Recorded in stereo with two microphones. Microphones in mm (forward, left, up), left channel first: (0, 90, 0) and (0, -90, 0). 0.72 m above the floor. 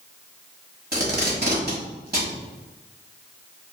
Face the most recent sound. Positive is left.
turn(degrees=-55)  # may be behind; listen again after turning